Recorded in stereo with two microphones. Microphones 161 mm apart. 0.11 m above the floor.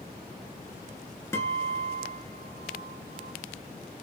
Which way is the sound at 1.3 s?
15° left (ahead or behind).